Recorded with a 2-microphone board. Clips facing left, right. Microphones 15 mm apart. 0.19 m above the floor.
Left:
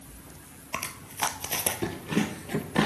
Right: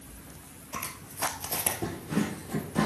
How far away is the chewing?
About 0.9 m.